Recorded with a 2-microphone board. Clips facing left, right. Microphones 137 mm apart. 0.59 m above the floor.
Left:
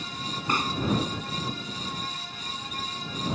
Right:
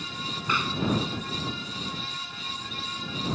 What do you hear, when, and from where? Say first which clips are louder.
0.5 s a pop: left 2 dB; 45° left (ahead or behind)